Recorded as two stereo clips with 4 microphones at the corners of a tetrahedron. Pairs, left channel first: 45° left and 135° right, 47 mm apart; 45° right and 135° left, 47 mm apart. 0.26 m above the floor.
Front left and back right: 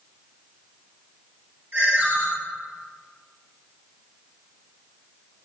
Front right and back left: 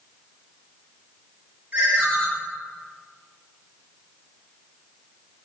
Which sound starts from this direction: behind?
A ringtone, at 1.7 s.